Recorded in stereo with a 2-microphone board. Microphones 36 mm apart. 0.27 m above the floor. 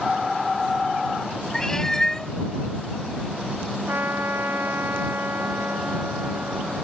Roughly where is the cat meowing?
Centre.